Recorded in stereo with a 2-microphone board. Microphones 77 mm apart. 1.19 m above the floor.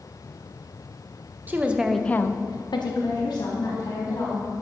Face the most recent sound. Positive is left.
turn(degrees=65)  # may be behind; listen again after turning